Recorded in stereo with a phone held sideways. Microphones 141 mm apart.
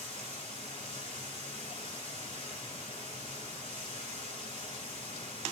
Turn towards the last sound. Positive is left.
turn(degrees=40)  # may be behind; listen again after turning